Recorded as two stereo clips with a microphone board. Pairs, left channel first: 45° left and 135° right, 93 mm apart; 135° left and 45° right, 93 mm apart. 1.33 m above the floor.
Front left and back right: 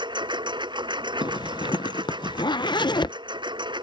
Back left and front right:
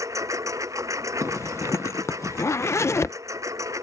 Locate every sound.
0.0 s a lawn mower: 100° right
1.2 s a zipper: 75° left